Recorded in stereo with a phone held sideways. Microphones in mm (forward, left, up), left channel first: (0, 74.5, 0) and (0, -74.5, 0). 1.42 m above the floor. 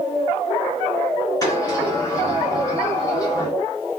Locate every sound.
1.4 s a sliding door: 25° left (ahead or behind), 2.5 m